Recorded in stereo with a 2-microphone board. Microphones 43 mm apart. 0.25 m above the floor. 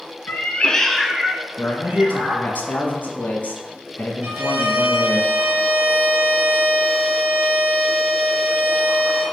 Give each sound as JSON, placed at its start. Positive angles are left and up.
{"t": 0.3, "sound": "a cat meowing", "side_deg": 50, "distance_m": 0.6}
{"t": 1.6, "sound": "a man speaking", "side_deg": 50, "distance_m": 1.7}
{"t": 4.2, "sound": "a violin", "side_deg": -30, "distance_m": 3.5}